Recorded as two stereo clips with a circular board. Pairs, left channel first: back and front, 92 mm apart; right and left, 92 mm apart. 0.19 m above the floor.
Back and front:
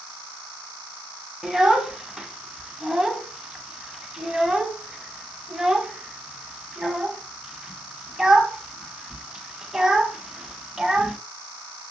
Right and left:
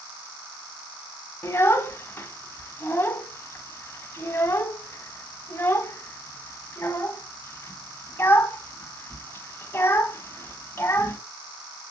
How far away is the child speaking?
About 0.9 m.